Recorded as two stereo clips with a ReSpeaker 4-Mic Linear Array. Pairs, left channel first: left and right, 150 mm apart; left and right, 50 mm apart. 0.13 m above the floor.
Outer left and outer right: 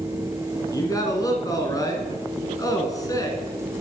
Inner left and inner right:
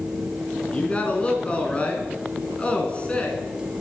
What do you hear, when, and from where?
0.7 s a man speaking: 25° left (ahead or behind), 1.5 m